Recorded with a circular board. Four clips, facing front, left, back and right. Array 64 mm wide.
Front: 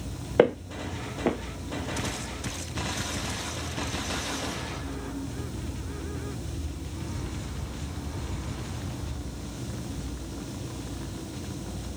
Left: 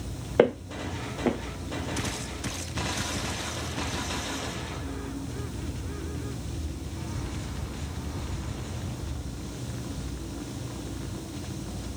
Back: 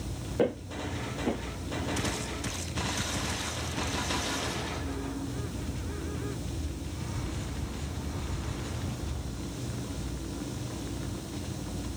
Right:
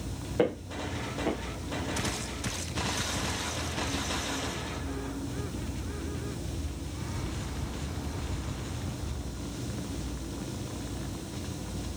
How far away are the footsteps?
About 1.8 m.